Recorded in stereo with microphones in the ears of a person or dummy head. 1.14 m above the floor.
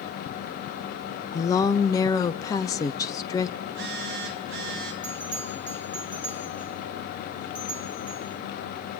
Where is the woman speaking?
20° left (ahead or behind), 0.7 m.